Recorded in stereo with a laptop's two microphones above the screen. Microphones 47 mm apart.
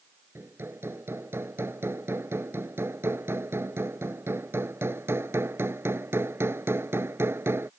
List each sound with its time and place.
0.3 s hammering: 60° right (ahead or behind)